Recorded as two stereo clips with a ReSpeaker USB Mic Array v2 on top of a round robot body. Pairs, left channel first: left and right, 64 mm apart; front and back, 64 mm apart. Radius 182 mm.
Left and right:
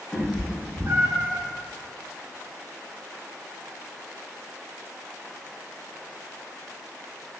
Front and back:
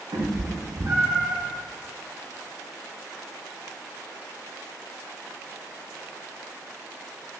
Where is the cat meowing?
170° left, 0.8 m; by 1.4 s 110° right, 1.1 m.